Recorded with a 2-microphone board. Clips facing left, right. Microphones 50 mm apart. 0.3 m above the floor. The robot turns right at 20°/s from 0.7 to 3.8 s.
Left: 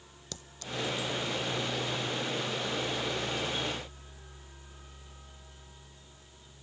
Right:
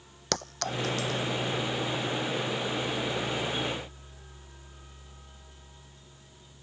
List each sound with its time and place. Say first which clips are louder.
0.3 s a clink: right 8 dB; 65° right (ahead or behind); by 1.3 s 75° right (ahead or behind)